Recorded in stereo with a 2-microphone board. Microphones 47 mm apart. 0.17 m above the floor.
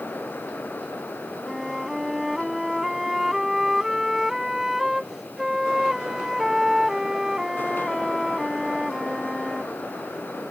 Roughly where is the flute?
Centre.